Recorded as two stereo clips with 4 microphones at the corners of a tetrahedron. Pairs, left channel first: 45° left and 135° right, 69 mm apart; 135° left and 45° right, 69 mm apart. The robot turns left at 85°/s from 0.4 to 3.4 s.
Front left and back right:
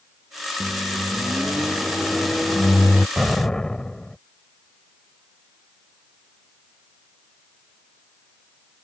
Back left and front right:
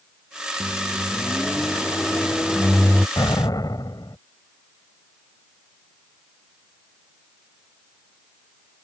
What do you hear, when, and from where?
0.6 s a microwave: 85° right; by 3.1 s 65° left
3.2 s an explosion: 145° left; by 4.2 s 125° left